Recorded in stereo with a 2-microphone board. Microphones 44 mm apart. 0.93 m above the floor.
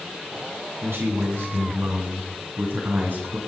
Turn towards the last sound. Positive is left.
turn(degrees=-45)  # may be behind; listen again after turning